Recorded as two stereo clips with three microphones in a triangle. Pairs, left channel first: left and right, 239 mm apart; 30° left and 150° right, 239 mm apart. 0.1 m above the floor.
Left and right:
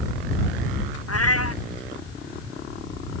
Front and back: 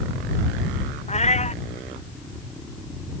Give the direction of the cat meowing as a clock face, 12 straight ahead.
9 o'clock.